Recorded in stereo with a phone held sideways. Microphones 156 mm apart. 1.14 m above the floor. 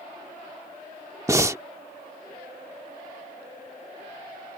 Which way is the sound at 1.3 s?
20° right (ahead or behind).